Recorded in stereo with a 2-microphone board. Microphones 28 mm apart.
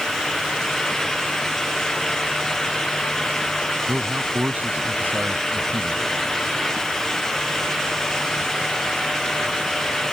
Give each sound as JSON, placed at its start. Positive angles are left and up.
{"t": 3.9, "sound": "a man speaking", "side_deg": -75}